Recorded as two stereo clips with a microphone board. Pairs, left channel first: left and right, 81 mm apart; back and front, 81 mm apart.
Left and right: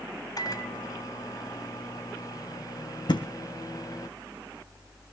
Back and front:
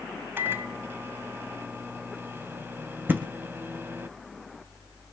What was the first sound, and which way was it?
A microwave, 60° left.